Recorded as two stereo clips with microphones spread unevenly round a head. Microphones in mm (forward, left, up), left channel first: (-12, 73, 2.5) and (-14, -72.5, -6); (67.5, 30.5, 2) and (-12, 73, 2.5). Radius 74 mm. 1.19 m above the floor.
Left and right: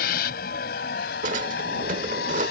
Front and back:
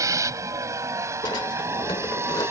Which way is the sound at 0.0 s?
105° left.